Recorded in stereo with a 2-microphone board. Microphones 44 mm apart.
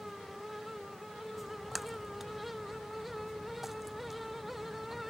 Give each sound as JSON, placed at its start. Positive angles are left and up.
{"t": 1.4, "sound": "a splash", "side_deg": -5}